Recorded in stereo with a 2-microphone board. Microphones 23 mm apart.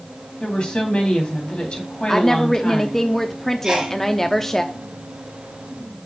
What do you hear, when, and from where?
0.4 s a woman speaking: 50° left (ahead or behind), 3 m
2.1 s a woman speaking: 10° left (ahead or behind), 0.6 m
3.6 s a sneeze: 30° right (ahead or behind), 3 m